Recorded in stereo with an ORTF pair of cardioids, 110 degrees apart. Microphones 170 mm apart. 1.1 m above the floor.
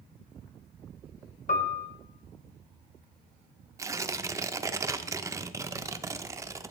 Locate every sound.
1.5 s a piano: 50° left, 1.9 m
3.8 s tearing paper: 20° right, 0.5 m